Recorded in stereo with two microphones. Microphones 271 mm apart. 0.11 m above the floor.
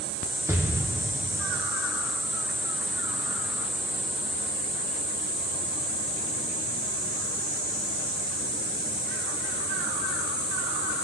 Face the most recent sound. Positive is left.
turn(degrees=-10)  # may be behind; listen again after turning